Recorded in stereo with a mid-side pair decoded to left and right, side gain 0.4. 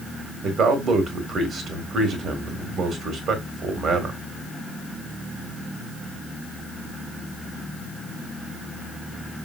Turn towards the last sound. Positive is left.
turn(degrees=-60)